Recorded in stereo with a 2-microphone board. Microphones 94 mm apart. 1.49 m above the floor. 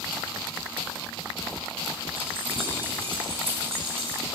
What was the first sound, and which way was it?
Keys jangling, 85° right.